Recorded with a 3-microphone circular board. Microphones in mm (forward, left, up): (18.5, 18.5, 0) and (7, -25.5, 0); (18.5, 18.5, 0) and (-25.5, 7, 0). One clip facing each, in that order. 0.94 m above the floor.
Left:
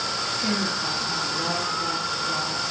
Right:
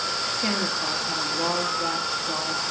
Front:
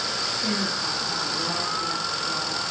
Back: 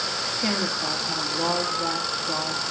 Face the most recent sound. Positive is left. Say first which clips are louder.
# even, back 3 dB
turn(degrees=-150)